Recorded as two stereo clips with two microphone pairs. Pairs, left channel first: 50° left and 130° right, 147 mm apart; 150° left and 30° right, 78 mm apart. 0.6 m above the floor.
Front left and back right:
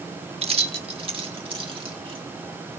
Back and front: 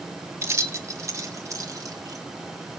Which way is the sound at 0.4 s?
85° right.